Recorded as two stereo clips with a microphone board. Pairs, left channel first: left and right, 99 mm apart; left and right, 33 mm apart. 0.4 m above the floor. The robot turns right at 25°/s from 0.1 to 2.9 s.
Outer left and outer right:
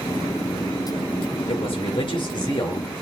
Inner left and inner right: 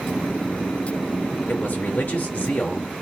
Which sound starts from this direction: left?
A man speaking, at 1.5 s.